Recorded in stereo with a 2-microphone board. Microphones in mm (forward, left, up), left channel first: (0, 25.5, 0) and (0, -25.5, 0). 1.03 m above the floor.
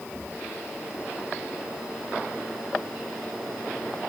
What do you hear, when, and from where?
Only background noise.